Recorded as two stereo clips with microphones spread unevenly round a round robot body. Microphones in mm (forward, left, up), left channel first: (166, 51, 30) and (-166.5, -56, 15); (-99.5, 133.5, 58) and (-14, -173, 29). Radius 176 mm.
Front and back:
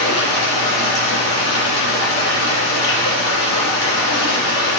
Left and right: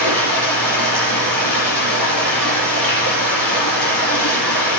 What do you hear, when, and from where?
0.0 s running water: 55° left, 9 m